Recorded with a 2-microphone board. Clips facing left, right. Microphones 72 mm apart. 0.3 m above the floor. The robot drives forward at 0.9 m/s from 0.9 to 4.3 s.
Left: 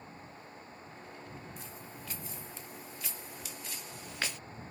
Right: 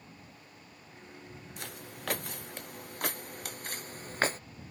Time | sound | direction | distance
1.6 | footsteps | 70° right (ahead or behind) | ?